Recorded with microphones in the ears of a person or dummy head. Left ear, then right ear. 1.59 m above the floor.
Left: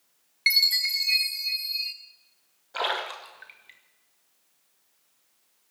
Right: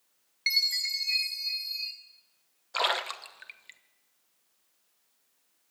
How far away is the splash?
About 0.9 m.